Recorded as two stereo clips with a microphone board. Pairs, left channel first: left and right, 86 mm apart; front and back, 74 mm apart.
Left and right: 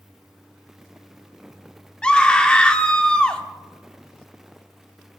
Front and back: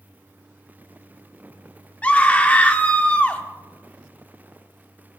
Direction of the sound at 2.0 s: 35° left.